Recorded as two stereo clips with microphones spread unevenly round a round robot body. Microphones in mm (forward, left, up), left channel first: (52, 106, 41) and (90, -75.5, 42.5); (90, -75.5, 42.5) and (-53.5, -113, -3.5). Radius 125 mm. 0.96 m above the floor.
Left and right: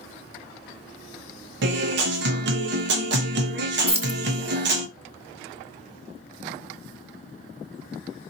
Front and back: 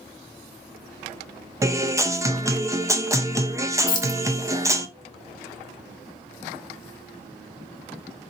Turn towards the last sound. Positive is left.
turn(degrees=-20)